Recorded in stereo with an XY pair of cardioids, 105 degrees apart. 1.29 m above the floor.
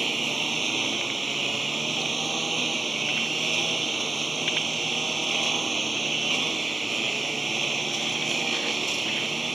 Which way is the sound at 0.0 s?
20° right.